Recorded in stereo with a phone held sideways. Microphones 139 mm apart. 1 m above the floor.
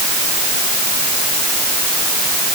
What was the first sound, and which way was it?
Only background noise.